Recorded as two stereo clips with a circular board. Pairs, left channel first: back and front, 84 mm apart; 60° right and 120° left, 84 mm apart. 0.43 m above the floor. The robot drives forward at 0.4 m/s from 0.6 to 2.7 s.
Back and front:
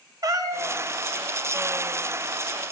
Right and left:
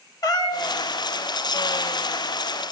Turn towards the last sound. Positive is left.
turn(degrees=-150)